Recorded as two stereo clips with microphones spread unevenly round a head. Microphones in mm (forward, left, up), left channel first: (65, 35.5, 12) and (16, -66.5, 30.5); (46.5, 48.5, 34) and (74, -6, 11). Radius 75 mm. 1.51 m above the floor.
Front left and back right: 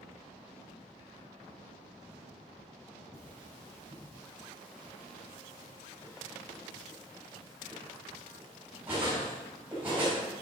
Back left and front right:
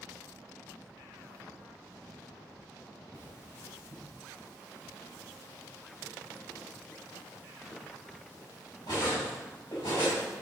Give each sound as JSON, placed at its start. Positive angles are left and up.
{"t": 3.1, "sound": "cutlery clinking", "azimuth_deg": 165, "distance_m": 4.5}